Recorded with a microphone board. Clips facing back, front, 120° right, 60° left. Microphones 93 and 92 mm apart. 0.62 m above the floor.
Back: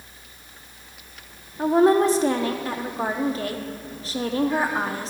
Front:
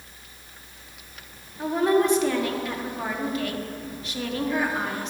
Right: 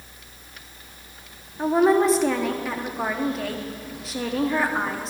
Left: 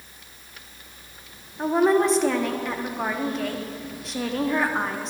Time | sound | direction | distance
1.6 | a woman speaking | 150° left | 0.6 m